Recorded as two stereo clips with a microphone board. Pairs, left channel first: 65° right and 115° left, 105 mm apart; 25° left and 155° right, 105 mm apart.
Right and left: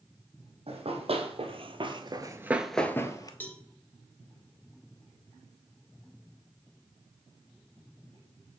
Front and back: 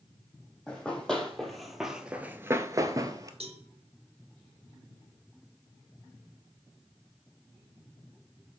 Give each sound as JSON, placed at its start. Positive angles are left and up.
{"t": 0.7, "sound": "running footsteps", "azimuth_deg": 105, "distance_m": 1.4}
{"t": 3.4, "sound": "a cowbell", "azimuth_deg": -140, "distance_m": 0.8}